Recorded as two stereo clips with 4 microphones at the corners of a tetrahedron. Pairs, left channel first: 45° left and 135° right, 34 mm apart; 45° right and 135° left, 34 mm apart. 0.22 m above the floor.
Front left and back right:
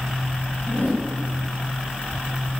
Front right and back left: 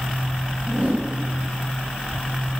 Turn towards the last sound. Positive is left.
turn(degrees=75)